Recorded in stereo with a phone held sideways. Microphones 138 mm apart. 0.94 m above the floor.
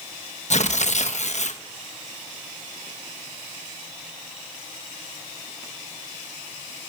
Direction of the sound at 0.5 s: 55° left (ahead or behind).